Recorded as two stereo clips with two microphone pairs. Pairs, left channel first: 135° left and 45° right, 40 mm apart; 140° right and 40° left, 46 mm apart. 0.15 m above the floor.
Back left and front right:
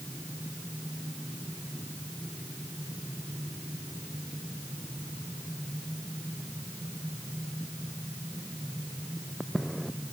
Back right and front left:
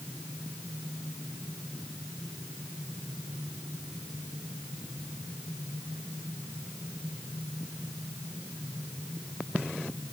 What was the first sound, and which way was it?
Only background noise.